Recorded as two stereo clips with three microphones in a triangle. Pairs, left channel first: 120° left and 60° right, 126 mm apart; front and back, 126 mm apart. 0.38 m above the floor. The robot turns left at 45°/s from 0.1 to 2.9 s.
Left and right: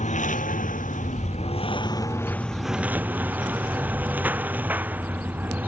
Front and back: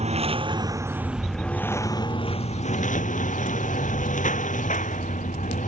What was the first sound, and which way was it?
A lawn mower, 145° left.